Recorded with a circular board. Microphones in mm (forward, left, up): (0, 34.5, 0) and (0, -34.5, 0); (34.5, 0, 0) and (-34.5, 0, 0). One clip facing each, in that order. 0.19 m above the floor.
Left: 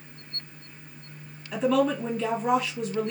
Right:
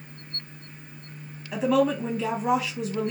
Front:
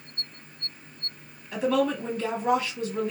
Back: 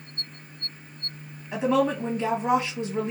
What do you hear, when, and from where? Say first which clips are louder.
1.5 s a woman speaking: right 1 dB, back 1 dB; 170° right, 1.0 m